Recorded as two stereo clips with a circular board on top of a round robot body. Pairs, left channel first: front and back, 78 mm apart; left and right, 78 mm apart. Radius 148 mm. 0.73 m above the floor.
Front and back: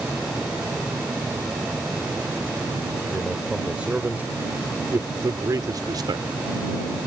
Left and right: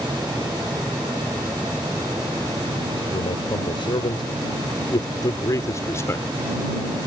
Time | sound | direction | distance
3.1 | a man speaking | 95° left | ?